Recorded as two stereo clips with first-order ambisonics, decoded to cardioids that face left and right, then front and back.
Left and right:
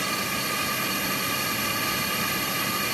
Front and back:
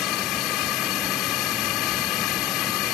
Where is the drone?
5° right.